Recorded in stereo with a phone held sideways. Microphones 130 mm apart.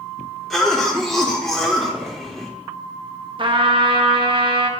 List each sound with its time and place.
0.5 s a cough: centre (ahead or behind), 1.4 m
3.4 s a trumpet: 40° right (ahead or behind), 0.7 m